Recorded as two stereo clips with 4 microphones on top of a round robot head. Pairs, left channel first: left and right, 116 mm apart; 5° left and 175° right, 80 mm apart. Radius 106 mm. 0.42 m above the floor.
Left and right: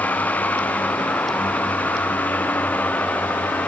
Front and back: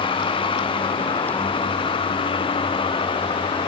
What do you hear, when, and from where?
0.0 s a vehicle: 15° left